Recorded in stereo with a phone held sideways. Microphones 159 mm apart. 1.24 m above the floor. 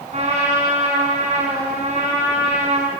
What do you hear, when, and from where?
0.1 s a trumpet: 50° right (ahead or behind), 5.5 m